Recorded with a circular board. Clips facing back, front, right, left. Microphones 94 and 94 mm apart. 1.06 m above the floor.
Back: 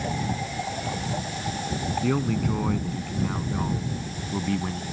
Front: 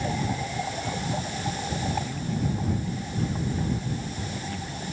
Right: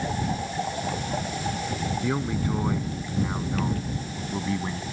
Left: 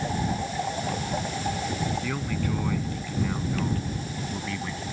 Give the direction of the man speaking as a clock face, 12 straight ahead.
5 o'clock.